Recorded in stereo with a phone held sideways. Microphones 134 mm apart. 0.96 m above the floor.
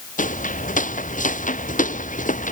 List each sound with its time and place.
0.2 s footsteps: 70° left (ahead or behind)